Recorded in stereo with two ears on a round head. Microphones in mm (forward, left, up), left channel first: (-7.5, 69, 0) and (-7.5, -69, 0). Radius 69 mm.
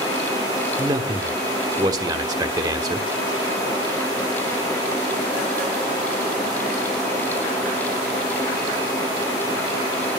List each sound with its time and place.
0.8 s a man speaking: 25° right (ahead or behind), 1.0 m